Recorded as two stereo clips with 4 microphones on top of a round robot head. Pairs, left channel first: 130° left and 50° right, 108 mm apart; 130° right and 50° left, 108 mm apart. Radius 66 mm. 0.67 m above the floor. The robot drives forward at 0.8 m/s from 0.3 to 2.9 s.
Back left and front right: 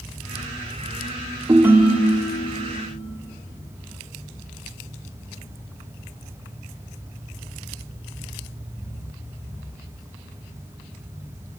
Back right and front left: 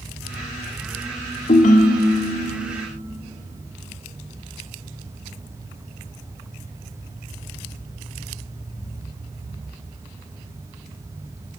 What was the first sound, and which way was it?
A ringtone, 110° right.